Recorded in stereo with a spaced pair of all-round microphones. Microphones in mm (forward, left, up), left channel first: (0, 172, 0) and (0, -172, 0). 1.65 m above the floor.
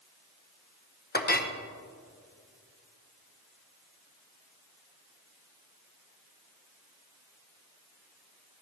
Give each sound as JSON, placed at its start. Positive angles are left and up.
{"t": 1.1, "sound": "a clink", "side_deg": 30, "distance_m": 0.7}